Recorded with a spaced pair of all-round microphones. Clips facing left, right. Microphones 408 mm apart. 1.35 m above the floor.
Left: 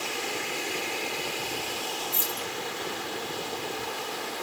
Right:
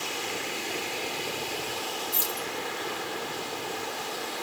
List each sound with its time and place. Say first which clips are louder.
2.1 s keys jangling: even; 55° right (ahead or behind), 1.8 m